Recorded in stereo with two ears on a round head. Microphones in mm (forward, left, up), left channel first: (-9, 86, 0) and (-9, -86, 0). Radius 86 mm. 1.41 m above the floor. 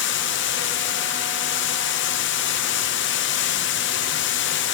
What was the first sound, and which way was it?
Running water, 65° left (ahead or behind).